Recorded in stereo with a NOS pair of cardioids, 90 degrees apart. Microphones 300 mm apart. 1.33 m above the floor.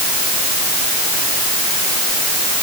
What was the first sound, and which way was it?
Only background noise.